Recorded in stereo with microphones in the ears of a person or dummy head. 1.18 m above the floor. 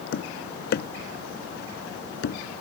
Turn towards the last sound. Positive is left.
turn(degrees=55)  # may be behind; listen again after turning